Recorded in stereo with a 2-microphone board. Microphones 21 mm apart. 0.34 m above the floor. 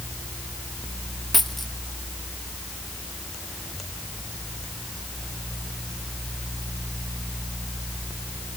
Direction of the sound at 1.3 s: Centre (ahead or behind).